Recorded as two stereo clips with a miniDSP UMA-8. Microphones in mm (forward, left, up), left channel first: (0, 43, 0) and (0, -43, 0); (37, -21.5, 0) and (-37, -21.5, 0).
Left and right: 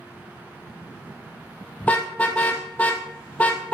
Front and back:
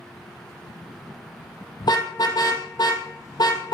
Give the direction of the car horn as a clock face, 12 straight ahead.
11 o'clock.